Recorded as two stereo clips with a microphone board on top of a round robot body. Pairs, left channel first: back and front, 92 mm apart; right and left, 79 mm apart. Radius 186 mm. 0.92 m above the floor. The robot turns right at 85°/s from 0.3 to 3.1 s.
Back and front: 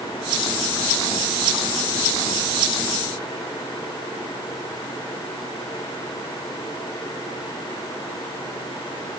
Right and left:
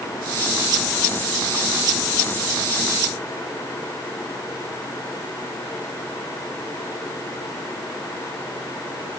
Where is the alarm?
No alarm in this recording.